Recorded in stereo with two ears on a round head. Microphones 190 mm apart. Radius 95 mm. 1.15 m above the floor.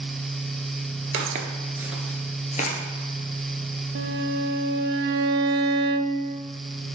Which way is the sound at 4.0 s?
55° right (ahead or behind).